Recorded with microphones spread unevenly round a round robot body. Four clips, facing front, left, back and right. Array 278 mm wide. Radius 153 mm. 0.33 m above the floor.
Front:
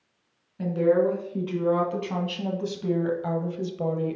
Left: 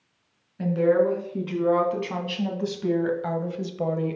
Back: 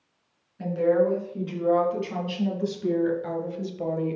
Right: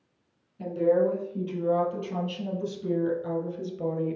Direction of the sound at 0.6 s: 55° left.